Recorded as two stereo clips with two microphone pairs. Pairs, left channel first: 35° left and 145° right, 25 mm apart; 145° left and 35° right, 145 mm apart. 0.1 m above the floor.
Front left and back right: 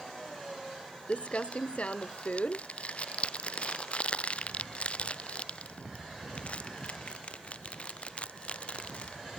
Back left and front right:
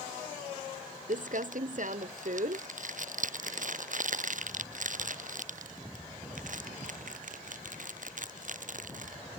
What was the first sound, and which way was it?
Crumpling, 10° right.